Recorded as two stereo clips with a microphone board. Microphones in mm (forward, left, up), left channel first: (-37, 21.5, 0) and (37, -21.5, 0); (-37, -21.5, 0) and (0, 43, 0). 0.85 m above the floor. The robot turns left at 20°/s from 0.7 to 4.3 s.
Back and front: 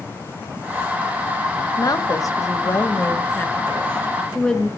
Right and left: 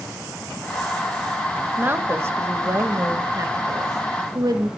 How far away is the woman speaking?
About 1.2 m.